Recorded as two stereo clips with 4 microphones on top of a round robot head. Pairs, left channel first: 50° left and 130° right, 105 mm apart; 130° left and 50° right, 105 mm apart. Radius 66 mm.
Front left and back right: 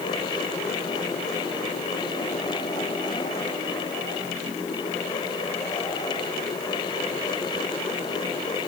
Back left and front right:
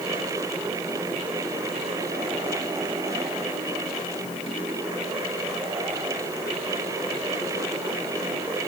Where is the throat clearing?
No throat clearing in this recording.